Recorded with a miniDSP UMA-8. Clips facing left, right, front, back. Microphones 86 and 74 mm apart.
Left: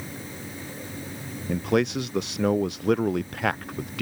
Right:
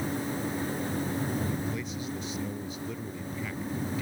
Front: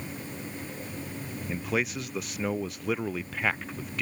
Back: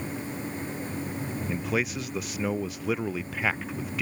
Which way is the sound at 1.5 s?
90° left.